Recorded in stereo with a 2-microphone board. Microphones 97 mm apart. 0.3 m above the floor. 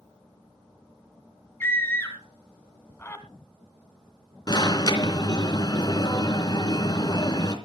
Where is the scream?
20° left (ahead or behind), 2 m.